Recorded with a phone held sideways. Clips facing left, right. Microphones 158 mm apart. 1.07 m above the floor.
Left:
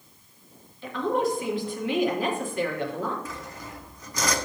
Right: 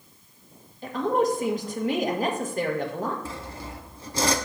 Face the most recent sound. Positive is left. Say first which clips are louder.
# right 2 dB
turn(degrees=-30)  # may be behind; listen again after turning